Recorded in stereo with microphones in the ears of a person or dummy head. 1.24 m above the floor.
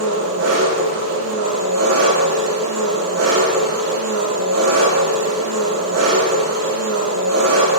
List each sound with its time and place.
0.0 s an engine running: 80° right, 10 m